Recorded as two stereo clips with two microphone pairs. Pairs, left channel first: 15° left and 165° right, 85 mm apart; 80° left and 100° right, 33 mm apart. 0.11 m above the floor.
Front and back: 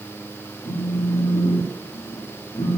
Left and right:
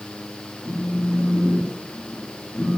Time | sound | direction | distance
0.7 | a phone buzzing | 20° left | 6.5 m